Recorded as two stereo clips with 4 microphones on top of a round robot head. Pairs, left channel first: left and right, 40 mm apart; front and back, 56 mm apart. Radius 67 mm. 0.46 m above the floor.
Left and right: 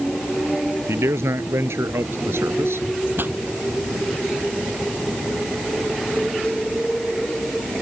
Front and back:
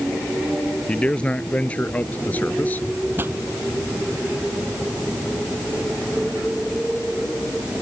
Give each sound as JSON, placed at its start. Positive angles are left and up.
{"t": 0.9, "sound": "a man speaking", "azimuth_deg": -75}
{"t": 3.2, "sound": "a pop", "azimuth_deg": -125}